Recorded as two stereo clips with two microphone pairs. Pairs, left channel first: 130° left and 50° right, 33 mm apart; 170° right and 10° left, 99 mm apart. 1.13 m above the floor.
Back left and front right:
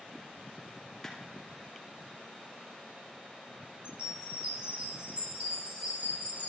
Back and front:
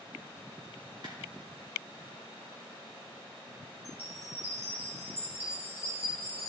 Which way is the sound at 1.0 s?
50° left.